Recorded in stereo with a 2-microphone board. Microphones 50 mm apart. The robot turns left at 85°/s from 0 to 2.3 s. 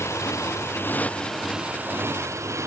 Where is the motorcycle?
65° left (ahead or behind); by 2.7 s 75° right (ahead or behind).